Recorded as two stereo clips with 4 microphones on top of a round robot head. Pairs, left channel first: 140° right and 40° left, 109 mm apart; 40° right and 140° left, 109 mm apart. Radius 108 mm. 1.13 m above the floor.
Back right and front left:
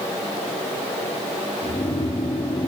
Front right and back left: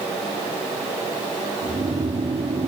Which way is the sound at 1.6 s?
175° left.